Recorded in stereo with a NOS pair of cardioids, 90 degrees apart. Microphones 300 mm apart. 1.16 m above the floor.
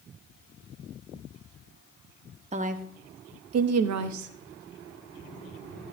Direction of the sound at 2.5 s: 20° right.